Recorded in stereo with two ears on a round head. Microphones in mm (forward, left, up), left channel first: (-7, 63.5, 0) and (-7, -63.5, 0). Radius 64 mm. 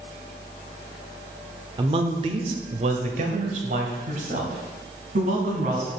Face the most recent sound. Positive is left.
turn(degrees=-60)  # may be behind; listen again after turning